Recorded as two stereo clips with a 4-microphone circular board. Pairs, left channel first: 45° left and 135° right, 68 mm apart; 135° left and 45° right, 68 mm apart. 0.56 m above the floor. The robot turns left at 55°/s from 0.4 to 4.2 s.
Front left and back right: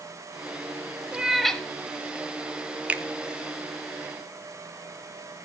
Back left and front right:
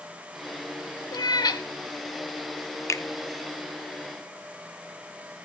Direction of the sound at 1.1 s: 150° left.